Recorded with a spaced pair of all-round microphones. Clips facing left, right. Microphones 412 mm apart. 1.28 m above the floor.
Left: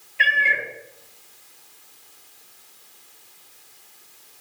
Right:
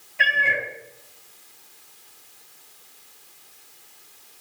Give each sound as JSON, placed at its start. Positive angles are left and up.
{"t": 0.2, "sound": "a cat meowing", "side_deg": -60, "distance_m": 1.9}